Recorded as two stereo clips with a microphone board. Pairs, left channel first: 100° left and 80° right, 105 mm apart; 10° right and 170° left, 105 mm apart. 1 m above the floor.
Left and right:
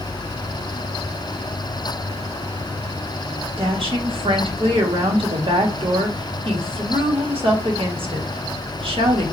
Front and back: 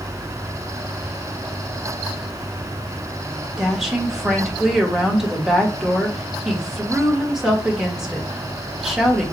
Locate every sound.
3.6 s a woman speaking: 105° right, 1.6 m